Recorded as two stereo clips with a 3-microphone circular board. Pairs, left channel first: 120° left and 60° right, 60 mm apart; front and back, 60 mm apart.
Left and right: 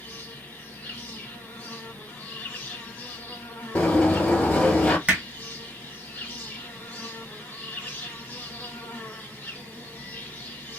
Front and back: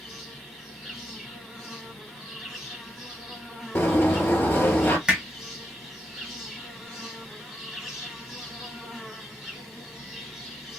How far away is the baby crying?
I don't hear a baby crying.